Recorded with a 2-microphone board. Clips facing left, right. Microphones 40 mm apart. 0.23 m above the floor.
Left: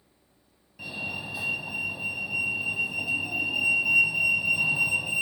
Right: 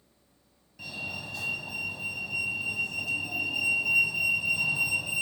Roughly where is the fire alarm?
Centre.